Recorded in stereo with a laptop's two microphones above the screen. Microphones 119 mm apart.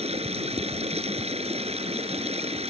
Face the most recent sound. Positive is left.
turn(degrees=-60)  # may be behind; listen again after turning